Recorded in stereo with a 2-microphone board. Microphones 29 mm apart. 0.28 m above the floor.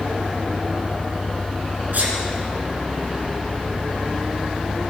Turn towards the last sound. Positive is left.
turn(degrees=-65)  # may be behind; listen again after turning